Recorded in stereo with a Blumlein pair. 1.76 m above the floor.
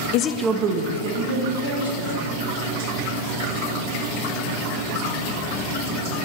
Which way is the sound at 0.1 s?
45° left.